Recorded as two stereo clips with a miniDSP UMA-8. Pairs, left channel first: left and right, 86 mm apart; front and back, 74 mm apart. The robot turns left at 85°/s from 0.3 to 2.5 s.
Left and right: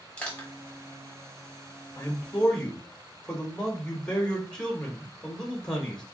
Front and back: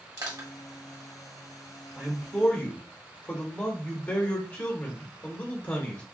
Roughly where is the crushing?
Behind.